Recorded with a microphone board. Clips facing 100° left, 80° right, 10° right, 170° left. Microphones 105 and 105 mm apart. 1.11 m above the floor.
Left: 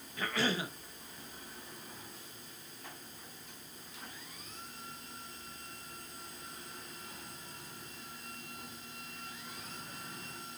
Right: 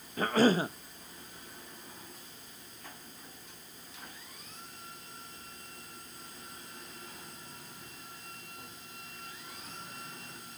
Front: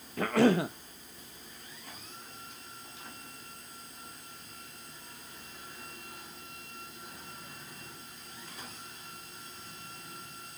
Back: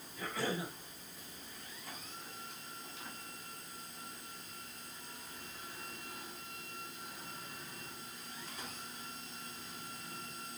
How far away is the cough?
About 0.9 m.